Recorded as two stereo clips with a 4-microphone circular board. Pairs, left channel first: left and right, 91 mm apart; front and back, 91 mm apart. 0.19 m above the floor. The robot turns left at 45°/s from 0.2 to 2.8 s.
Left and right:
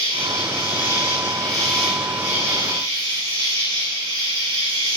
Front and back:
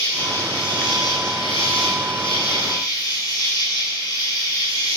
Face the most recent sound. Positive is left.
turn(degrees=-45)